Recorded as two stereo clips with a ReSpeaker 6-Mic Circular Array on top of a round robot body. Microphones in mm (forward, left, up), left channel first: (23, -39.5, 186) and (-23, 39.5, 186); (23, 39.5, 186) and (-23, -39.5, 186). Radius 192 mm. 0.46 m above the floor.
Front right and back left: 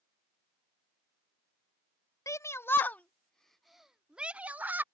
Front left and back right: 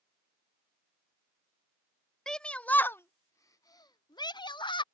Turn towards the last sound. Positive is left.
turn(degrees=55)